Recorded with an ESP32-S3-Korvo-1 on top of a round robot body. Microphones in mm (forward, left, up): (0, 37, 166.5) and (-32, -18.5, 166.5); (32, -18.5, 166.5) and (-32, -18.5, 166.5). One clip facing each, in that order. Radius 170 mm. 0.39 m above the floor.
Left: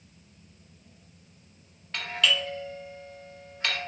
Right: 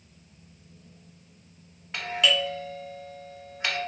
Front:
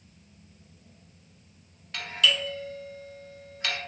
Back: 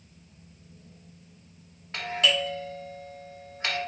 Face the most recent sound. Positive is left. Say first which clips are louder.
# right 2 dB, back 1 dB
turn(degrees=180)